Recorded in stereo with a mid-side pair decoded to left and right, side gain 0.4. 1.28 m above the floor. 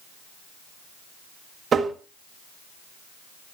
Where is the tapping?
55° right, 1.7 m.